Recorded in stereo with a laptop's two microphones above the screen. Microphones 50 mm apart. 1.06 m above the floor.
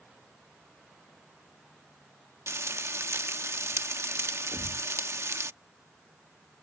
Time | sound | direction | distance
2.5 | frying | 65° right (ahead or behind) | ?
4.5 | a thud | 85° right | ?